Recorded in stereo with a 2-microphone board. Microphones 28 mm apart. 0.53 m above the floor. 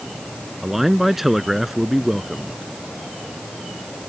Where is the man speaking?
10° right (ahead or behind).